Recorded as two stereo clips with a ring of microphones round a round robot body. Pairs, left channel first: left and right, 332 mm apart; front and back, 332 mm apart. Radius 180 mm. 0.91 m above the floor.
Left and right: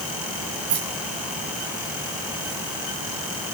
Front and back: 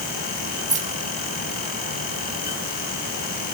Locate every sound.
0.7 s keys jangling: 110° right, 5 m; by 2.6 s 100° right, 7 m